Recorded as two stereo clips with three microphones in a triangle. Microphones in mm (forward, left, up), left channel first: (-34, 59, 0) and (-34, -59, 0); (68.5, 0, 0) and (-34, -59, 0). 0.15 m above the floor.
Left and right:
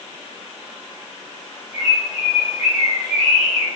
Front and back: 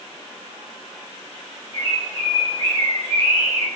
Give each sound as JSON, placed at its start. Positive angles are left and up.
{"t": 1.7, "sound": "a bird", "azimuth_deg": 70, "distance_m": 4.0}